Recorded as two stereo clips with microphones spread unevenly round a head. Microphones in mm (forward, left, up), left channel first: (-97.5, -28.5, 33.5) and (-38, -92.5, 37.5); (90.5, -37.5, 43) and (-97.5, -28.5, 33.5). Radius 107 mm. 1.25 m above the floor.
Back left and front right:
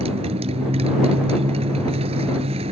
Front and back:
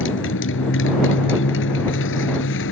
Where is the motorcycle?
20° right.